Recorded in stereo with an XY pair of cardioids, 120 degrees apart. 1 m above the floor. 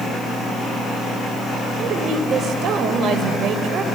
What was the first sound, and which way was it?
A woman speaking, 60° right.